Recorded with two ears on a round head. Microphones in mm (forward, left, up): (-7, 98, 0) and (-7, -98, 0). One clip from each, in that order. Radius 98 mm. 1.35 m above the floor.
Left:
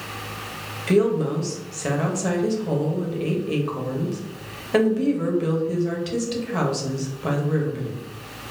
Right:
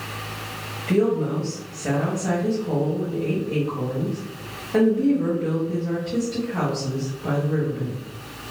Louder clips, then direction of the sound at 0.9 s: Left 1 dB; 75° left (ahead or behind).